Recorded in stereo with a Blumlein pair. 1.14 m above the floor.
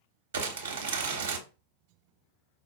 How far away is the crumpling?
About 0.9 m.